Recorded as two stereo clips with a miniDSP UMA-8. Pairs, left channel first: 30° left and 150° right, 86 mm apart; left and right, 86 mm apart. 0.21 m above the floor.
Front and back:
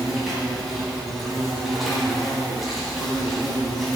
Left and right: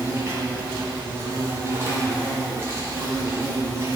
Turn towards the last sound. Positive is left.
turn(degrees=-60)